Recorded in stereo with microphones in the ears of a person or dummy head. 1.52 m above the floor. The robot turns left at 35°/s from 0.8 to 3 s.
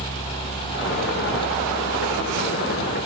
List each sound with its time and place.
Only background noise.